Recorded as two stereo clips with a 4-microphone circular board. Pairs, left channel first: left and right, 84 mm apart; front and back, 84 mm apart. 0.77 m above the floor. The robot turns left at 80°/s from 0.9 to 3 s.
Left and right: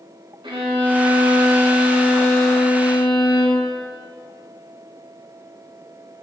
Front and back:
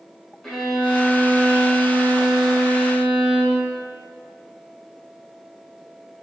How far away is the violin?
About 3 m.